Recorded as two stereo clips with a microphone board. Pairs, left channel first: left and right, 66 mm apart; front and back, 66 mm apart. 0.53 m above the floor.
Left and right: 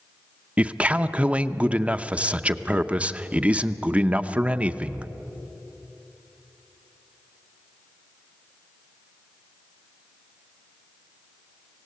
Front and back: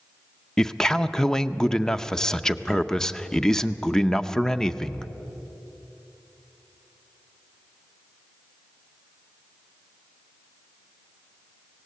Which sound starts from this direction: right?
A man speaking, at 0.6 s.